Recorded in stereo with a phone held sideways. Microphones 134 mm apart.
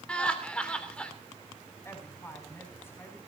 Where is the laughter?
10° left (ahead or behind), 3 m.